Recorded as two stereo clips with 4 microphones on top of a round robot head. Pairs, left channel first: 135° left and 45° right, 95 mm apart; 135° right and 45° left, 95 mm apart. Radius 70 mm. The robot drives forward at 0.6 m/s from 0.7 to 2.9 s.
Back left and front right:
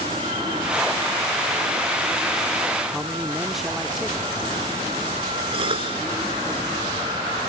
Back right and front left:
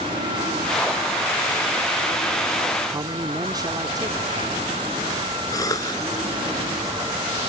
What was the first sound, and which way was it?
A man speaking, 40° left.